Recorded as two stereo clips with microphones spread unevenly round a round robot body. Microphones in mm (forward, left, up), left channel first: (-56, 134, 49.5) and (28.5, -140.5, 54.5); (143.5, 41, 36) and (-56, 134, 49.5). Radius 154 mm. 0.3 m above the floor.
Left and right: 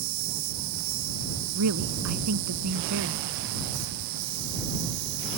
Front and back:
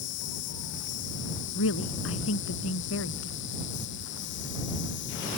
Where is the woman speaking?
40° right.